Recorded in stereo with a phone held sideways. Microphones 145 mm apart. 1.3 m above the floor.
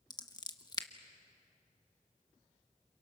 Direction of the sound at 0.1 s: 30° left (ahead or behind).